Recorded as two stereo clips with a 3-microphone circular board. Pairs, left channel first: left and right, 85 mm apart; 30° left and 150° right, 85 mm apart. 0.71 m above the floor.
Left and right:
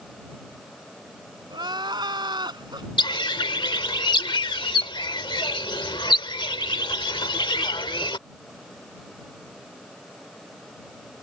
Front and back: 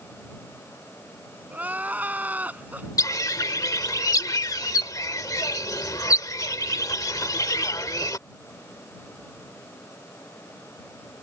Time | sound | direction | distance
1.5 | crying | 80° right | ?
3.0 | a bird | 75° left | ?